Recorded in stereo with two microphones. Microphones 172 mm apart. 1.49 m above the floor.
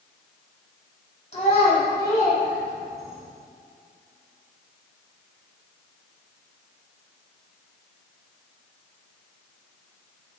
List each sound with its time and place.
1.3 s a child speaking: 40° left (ahead or behind), 3.5 m; by 3.2 s 10° right (ahead or behind), 3.5 m